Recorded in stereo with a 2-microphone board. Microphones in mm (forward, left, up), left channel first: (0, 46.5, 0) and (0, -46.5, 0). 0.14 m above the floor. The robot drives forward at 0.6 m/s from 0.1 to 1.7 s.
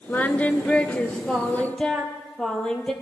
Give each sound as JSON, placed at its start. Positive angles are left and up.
{"t": 0.1, "sound": "singing", "side_deg": 20, "distance_m": 0.5}